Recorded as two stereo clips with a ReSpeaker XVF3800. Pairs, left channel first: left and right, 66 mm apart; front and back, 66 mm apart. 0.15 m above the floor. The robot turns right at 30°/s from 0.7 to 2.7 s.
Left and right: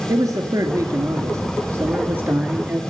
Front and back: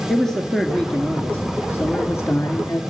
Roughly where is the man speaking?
Right.